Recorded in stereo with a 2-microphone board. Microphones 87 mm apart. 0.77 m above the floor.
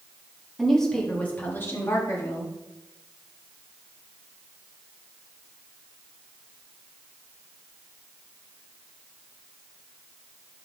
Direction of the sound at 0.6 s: Centre (ahead or behind).